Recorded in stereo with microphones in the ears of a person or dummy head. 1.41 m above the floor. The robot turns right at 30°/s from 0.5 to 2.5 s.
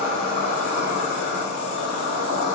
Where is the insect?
40° left, 0.9 m; by 2.6 s 100° left, 0.9 m.